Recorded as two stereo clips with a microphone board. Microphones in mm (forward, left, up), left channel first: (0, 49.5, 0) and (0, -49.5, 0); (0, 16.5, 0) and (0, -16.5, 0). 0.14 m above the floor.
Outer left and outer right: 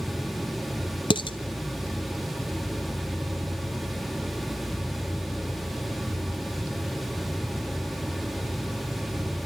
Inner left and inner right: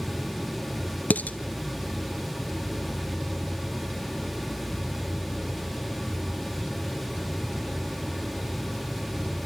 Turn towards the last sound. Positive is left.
turn(degrees=55)  # may be behind; listen again after turning